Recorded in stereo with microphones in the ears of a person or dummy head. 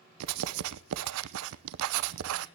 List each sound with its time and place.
0.2 s writing: 70° right (ahead or behind), 0.7 m